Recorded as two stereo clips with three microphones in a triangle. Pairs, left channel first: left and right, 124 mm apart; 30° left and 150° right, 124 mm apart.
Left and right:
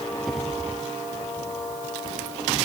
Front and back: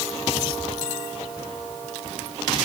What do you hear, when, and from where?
Only background noise.